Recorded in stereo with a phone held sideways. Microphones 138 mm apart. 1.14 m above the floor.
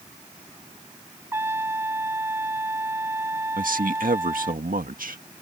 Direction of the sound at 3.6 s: 80° right.